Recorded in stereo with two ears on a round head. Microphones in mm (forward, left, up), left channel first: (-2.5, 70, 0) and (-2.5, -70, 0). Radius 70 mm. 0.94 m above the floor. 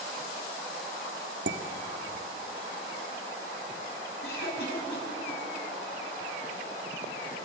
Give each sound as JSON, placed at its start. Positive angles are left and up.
{"t": 1.5, "sound": "dishes clattering", "side_deg": -90, "distance_m": 1.2}
{"t": 4.2, "sound": "a cough", "side_deg": 80, "distance_m": 6.0}